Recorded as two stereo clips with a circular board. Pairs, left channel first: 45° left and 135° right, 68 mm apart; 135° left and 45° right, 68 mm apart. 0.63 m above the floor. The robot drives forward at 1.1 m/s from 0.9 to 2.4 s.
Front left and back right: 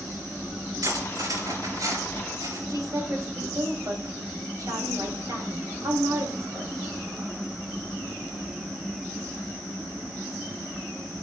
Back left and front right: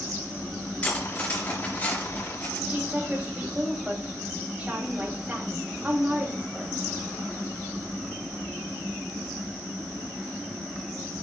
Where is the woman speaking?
110° right, 4 m.